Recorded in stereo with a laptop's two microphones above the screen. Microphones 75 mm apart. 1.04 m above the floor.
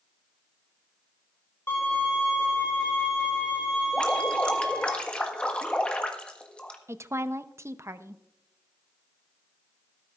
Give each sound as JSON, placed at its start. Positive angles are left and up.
{"t": 1.7, "sound": "a violin", "side_deg": 35, "distance_m": 4.0}
{"t": 3.9, "sound": "dripping", "side_deg": 15, "distance_m": 1.5}
{"t": 6.9, "sound": "a woman speaking", "side_deg": -40, "distance_m": 0.7}